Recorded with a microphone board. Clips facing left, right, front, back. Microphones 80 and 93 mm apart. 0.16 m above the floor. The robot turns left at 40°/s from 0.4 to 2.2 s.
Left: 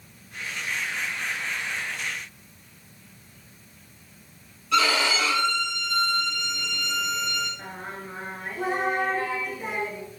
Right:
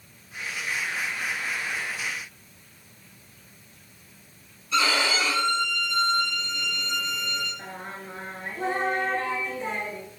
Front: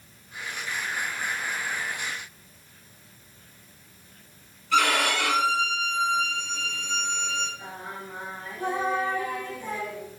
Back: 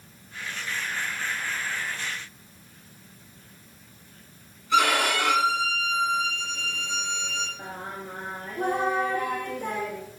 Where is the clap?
I don't hear a clap.